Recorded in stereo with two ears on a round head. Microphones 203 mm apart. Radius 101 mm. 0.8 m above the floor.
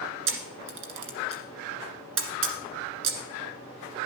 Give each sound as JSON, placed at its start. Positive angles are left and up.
{"t": 0.3, "sound": "a camera shutter", "side_deg": -55, "distance_m": 1.7}